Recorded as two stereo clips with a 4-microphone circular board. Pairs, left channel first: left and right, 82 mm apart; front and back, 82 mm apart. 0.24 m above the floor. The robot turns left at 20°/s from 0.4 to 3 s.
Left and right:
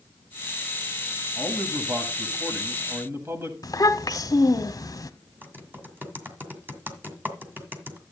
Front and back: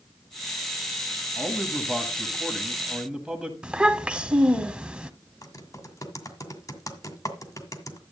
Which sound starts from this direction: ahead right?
Typing on a keyboard, at 5.4 s.